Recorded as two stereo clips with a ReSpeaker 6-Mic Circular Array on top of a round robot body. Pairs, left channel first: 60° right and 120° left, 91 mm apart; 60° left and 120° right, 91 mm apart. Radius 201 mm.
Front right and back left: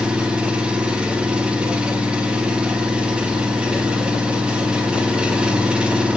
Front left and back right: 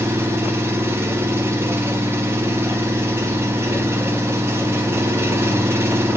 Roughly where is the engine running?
Behind.